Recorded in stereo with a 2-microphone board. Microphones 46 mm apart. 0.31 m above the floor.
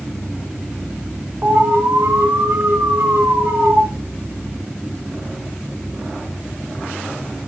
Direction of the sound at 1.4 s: 55° right (ahead or behind).